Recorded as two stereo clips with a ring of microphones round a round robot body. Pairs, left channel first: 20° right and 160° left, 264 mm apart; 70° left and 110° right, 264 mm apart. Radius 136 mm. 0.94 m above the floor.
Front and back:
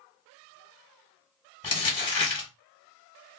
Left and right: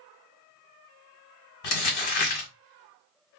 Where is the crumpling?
50° left, 1.7 m.